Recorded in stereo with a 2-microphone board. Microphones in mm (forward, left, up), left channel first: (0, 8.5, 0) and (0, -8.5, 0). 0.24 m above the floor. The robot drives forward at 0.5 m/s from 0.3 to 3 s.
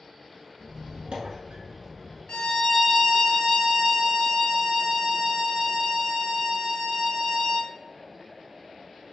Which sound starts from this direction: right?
A squeak, at 0.6 s.